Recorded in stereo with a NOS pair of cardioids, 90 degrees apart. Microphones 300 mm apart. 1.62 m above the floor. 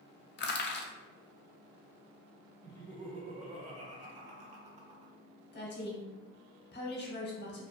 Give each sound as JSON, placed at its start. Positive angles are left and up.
{"t": 0.4, "sound": "crushing", "azimuth_deg": 40, "distance_m": 0.5}
{"t": 2.6, "sound": "laughter", "azimuth_deg": -25, "distance_m": 0.6}
{"t": 5.5, "sound": "a woman speaking", "azimuth_deg": 35, "distance_m": 1.0}